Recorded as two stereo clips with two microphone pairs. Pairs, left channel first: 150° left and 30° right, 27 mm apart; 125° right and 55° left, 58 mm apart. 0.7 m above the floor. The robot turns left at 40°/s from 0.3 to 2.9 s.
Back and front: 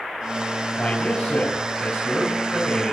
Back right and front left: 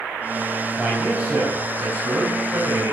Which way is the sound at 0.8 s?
140° left.